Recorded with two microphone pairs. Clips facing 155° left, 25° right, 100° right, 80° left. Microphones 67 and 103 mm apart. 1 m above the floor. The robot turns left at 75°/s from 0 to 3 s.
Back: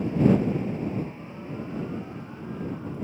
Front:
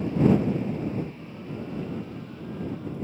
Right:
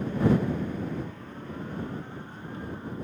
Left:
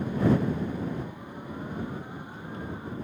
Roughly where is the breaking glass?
No breaking glass in this recording.